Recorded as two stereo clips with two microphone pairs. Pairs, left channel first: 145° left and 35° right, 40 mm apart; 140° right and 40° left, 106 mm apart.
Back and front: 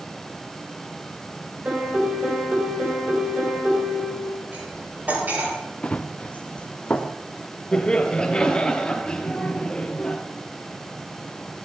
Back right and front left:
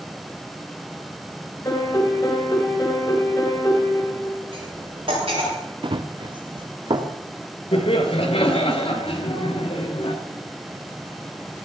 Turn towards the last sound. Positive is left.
turn(degrees=-145)